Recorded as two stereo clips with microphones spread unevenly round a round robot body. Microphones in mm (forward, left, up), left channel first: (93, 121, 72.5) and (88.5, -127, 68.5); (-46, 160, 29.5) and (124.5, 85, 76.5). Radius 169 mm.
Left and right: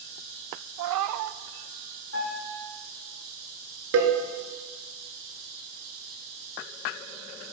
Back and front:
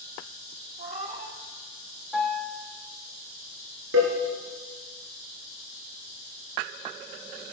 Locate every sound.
0.8 s a cat meowing: 90° right, 0.6 m
2.1 s a piano: 65° left, 4.5 m
3.9 s a cowbell: 60° right, 2.5 m